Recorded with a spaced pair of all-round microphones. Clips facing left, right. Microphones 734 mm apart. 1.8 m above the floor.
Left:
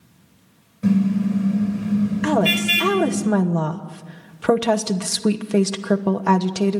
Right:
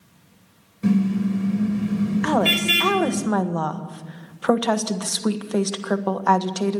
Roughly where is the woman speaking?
Left.